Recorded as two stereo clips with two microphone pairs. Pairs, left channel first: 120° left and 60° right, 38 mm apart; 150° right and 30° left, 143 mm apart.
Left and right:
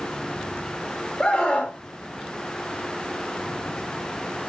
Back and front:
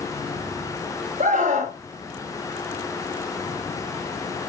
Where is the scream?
55° left, 3.5 m.